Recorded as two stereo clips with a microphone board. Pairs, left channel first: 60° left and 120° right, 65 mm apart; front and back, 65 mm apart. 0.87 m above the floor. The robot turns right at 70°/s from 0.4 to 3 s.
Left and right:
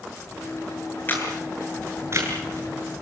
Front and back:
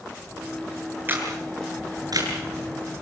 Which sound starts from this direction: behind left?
A camera shutter, at 1.1 s.